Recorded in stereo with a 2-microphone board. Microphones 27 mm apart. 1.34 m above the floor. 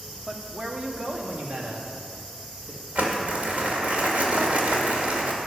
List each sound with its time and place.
0.3 s a man speaking: 15° right (ahead or behind), 1.0 m; by 2.8 s 50° right (ahead or behind), 2.5 m
3.0 s crumpling: 50° right (ahead or behind), 1.8 m